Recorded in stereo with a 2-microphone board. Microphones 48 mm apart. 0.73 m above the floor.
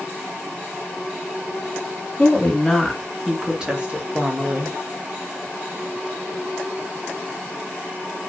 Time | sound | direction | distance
2.2 | a woman speaking | 15° left (ahead or behind) | 1.3 m